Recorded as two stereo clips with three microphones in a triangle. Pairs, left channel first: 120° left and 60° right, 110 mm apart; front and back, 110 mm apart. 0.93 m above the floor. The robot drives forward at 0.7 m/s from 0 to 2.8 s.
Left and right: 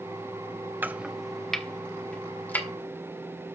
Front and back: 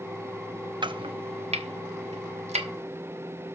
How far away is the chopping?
About 0.5 m.